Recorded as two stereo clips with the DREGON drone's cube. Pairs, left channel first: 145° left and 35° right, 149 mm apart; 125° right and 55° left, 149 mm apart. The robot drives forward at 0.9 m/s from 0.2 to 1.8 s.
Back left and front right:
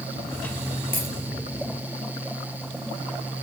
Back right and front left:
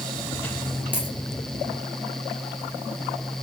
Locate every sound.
0.9 s a dropped coin: 135° left, 6 m